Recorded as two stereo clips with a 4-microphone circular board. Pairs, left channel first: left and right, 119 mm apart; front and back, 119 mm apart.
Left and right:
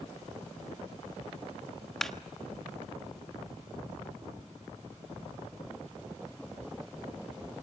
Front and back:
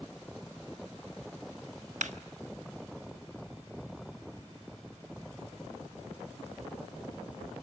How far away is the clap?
About 1.1 m.